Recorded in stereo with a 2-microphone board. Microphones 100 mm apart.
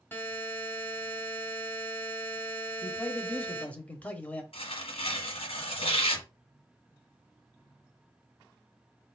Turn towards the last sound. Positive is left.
turn(degrees=70)  # may be behind; listen again after turning